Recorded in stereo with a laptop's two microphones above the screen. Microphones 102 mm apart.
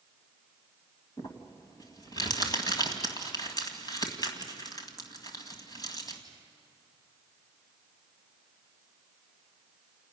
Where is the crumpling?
40° left (ahead or behind), 2.0 m.